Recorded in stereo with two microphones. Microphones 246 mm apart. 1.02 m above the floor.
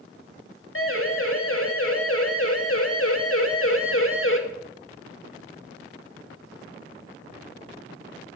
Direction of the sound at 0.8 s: 60° left (ahead or behind).